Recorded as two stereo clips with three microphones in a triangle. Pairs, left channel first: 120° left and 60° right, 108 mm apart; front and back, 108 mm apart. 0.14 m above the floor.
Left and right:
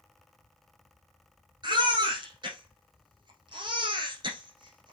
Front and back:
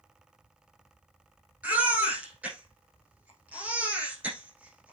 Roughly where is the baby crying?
Right.